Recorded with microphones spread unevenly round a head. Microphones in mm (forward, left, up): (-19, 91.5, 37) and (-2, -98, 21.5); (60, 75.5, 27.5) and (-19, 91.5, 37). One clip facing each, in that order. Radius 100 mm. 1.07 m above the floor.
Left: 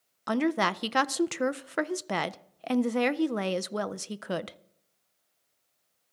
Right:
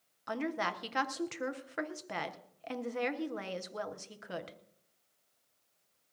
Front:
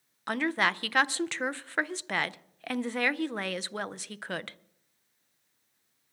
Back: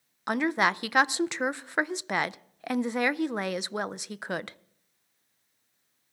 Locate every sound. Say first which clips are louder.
0.3 s a woman speaking: left 9 dB, back 3 dB; 90° left, 0.5 m